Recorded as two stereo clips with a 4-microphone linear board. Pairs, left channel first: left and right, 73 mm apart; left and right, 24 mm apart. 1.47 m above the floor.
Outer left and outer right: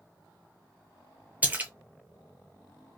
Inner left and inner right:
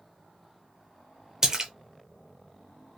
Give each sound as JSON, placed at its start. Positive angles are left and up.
{"t": 1.4, "sound": "a splash", "side_deg": -20, "distance_m": 0.6}